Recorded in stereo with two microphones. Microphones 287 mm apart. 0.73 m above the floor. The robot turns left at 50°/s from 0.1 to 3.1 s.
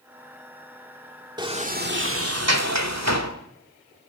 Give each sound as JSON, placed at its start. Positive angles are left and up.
{"t": 1.4, "sound": "a sliding door", "azimuth_deg": -15, "distance_m": 2.0}